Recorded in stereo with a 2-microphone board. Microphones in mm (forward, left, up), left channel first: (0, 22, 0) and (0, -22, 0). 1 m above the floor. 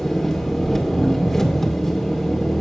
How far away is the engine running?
About 1.9 m.